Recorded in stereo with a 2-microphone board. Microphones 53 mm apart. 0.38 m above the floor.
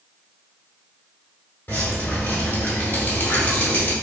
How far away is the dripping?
About 1.2 m.